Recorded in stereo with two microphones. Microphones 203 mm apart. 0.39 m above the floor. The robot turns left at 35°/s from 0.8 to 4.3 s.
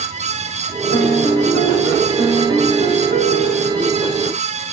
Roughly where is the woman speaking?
No woman speaking in this recording.